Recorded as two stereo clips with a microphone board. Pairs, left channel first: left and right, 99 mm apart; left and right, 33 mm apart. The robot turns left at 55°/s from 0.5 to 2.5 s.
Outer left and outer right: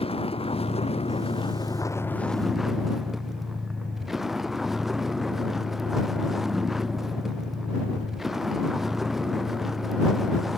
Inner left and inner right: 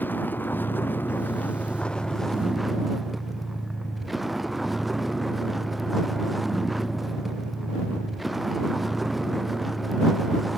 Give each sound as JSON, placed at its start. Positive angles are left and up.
{"t": 0.0, "sound": "a vehicle", "azimuth_deg": 110}